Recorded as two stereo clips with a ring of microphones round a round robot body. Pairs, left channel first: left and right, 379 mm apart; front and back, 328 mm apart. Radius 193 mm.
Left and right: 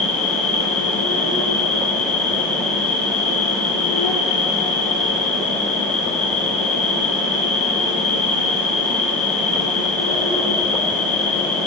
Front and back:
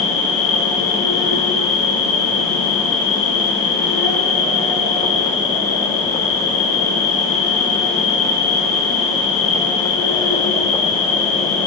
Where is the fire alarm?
I don't hear a fire alarm.